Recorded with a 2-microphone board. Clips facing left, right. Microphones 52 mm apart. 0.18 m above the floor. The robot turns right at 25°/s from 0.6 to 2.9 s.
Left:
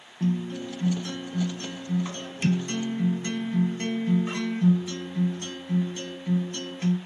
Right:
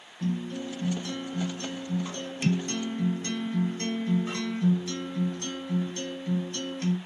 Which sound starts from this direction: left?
A guitar, at 0.2 s.